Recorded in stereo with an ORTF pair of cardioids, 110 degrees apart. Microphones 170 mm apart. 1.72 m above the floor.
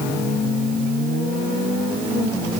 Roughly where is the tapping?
No tapping in this recording.